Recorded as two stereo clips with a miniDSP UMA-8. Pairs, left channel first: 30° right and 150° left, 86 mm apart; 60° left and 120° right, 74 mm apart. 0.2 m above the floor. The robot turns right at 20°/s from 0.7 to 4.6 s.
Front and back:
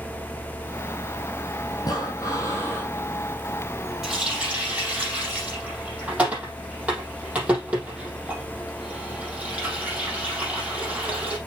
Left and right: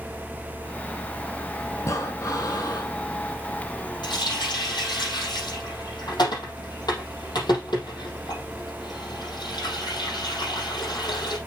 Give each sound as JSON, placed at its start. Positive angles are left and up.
{"t": 1.8, "sound": "breathing", "azimuth_deg": 10, "distance_m": 2.0}
{"t": 4.0, "sound": "a running tap", "azimuth_deg": 65, "distance_m": 4.5}